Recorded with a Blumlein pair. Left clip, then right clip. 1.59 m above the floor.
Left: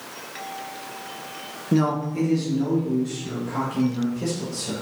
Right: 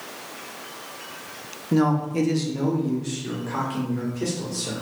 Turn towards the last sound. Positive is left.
turn(degrees=-65)